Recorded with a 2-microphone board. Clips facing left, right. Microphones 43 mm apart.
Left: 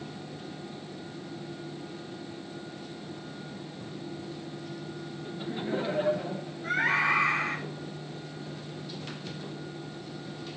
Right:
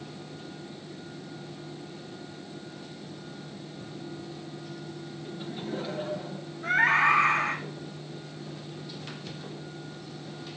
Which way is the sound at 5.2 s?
10° left (ahead or behind).